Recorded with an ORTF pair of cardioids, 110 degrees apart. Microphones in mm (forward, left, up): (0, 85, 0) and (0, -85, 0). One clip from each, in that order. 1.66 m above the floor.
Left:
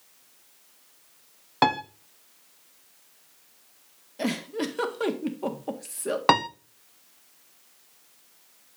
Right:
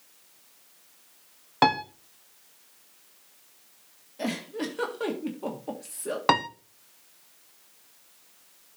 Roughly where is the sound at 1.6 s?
Ahead.